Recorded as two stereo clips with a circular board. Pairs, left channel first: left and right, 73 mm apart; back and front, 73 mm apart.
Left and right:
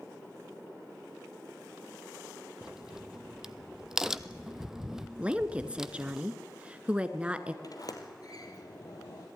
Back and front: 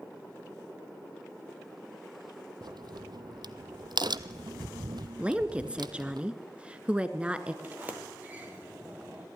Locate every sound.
2.6 s a crack: 5° right, 0.8 m
5.2 s a woman speaking: 45° right, 1.5 m
7.6 s a sliding door: 65° left, 2.5 m